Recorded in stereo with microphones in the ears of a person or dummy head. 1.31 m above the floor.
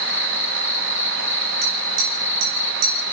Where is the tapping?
50° right (ahead or behind), 4 m.